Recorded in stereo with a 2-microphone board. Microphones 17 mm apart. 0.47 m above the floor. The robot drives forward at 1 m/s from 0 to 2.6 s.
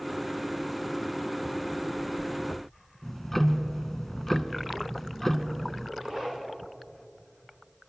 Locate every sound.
3.0 s ticking: 15° left (ahead or behind), 0.6 m
6.0 s a zipper: 45° right (ahead or behind), 4 m